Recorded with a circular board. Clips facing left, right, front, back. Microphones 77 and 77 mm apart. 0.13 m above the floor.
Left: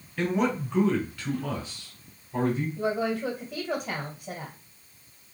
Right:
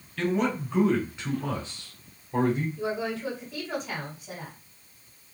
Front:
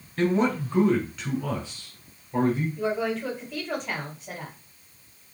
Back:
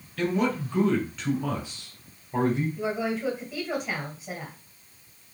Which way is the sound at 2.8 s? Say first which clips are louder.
Left 3 dB, front 2 dB; 100° left.